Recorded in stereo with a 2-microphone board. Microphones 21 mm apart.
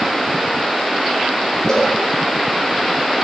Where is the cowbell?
25° left (ahead or behind), 5.5 m.